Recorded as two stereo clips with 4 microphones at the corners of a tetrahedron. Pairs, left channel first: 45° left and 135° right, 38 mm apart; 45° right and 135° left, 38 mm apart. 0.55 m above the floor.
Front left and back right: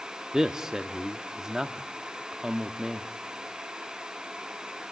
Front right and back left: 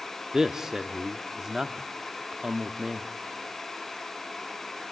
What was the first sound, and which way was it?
A man speaking, straight behind.